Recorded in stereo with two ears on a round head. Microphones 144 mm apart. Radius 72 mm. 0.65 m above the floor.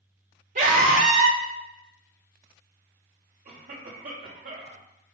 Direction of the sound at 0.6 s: 50° right (ahead or behind).